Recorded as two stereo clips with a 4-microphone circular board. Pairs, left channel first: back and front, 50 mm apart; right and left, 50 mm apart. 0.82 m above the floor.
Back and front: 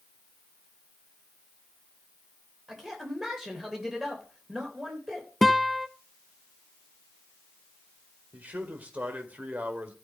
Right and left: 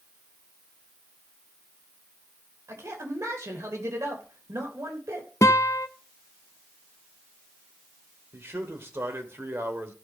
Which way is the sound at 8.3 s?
55° left.